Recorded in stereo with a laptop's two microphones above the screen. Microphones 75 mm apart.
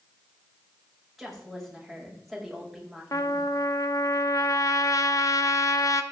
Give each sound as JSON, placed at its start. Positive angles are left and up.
{"t": 1.2, "sound": "a woman speaking", "side_deg": 0, "distance_m": 6.0}
{"t": 3.1, "sound": "a trumpet", "side_deg": 50, "distance_m": 0.8}